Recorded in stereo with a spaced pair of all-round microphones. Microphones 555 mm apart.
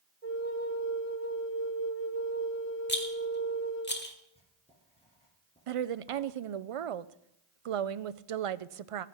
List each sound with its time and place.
0.2 s a flute: 75° right (ahead or behind), 1.6 m
2.9 s a rattle: 20° left (ahead or behind), 1.1 m
4.3 s writing: 10° left (ahead or behind), 3.5 m
5.7 s a woman speaking: 70° right (ahead or behind), 0.5 m